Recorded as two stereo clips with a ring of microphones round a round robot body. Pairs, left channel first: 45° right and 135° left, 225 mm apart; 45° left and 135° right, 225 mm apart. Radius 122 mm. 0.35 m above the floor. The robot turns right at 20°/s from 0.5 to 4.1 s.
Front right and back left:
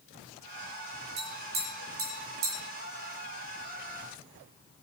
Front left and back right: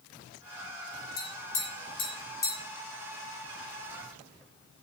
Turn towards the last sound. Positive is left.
turn(degrees=155)